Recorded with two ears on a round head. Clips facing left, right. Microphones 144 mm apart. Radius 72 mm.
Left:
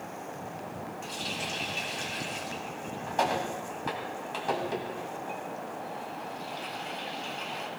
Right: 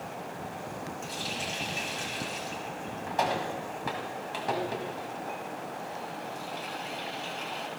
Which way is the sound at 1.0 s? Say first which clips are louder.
Right 1 dB; 5° right (ahead or behind).